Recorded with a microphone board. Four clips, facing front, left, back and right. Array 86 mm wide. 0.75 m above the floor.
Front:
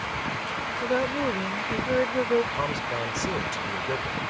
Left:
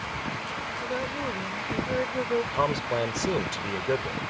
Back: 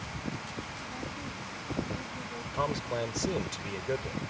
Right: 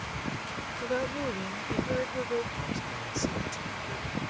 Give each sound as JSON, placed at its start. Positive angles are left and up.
{"t": 0.8, "sound": "a woman speaking", "azimuth_deg": -5}
{"t": 2.5, "sound": "a man speaking", "azimuth_deg": 90}